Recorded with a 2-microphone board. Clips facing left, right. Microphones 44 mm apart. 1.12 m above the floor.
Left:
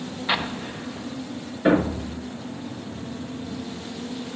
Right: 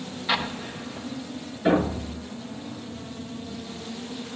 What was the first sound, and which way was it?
An explosion, 15° left (ahead or behind).